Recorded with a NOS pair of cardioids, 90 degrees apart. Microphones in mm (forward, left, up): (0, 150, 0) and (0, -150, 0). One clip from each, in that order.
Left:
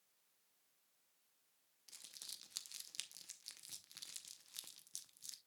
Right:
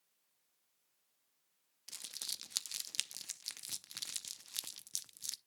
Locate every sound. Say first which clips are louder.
1.9 s crumpling: right 10 dB; 45° right, 0.6 m